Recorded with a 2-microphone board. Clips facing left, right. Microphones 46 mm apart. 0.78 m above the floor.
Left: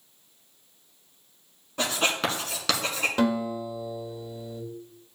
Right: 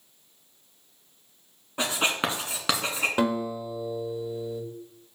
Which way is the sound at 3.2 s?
20° right (ahead or behind).